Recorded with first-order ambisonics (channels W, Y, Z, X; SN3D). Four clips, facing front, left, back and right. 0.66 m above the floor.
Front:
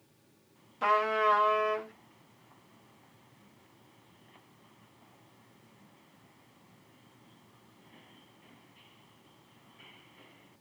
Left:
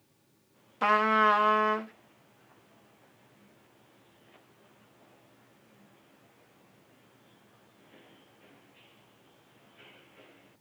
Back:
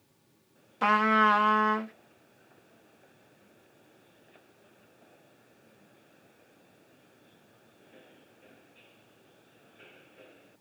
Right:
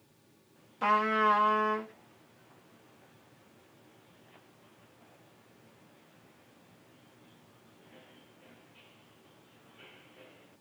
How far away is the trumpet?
About 0.7 m.